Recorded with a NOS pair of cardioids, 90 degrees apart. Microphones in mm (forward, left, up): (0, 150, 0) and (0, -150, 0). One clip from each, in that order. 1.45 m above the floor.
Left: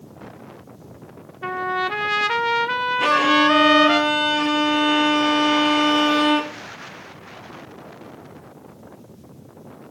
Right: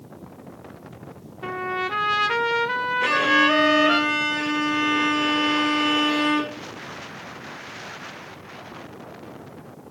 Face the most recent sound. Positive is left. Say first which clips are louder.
# left 2 dB
turn(degrees=60)